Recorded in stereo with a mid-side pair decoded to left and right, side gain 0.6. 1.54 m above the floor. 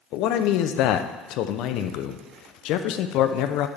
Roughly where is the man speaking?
Ahead left.